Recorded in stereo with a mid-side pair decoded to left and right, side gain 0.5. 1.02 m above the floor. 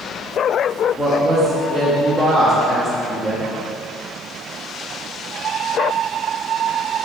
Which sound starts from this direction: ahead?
A woman speaking, at 1.0 s.